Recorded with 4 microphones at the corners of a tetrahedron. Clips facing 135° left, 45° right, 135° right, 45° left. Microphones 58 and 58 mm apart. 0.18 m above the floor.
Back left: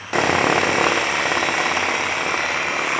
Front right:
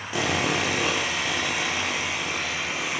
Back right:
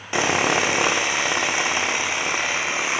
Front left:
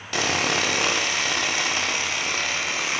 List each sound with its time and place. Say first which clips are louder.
0.1 s sawing: back left 8 dB, back right 4 dB; 160° left, 2 m